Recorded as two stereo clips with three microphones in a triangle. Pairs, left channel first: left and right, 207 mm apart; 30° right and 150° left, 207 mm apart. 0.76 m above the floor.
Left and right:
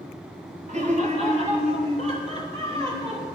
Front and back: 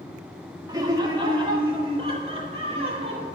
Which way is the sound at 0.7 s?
140° right.